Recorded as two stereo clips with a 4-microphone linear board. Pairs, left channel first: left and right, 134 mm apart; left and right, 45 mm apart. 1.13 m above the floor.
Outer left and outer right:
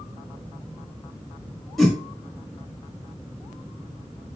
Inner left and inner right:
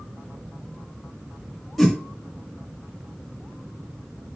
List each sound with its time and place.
1.8 s a whoosh: centre (ahead or behind), 1.2 m